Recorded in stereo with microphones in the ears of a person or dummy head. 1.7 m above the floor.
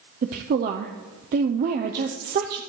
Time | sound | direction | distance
0.2 | a woman speaking | 45° right (ahead or behind) | 0.7 m